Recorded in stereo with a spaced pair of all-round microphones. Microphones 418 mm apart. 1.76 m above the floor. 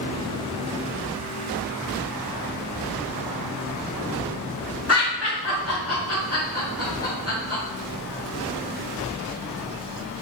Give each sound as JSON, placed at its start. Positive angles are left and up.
{"t": 4.9, "sound": "laughter", "side_deg": 35, "distance_m": 1.5}